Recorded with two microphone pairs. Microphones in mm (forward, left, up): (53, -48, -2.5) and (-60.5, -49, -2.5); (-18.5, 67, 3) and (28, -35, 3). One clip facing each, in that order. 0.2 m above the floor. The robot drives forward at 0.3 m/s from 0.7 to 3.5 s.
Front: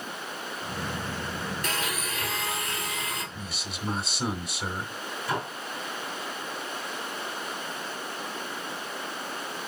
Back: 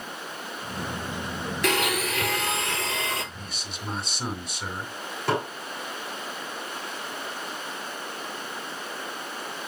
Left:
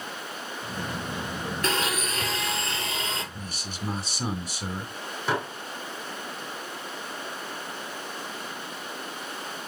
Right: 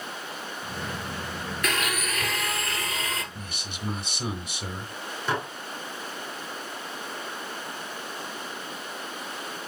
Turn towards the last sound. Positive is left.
turn(degrees=-165)